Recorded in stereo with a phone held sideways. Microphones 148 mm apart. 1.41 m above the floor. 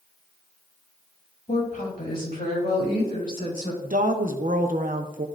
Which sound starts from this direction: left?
A woman speaking, at 1.5 s.